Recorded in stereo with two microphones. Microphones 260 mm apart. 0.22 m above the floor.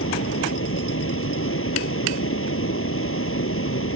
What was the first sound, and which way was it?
Running water, 55° left (ahead or behind).